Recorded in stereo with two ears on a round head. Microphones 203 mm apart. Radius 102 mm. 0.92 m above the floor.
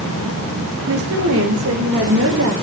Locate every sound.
0.9 s a woman speaking: 65° right (ahead or behind), 4 m